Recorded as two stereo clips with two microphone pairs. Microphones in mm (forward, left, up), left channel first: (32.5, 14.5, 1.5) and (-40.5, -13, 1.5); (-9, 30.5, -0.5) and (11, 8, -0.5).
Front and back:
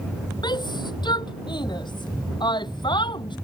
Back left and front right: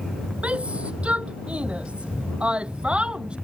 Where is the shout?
5° right; by 3.4 s 5° left.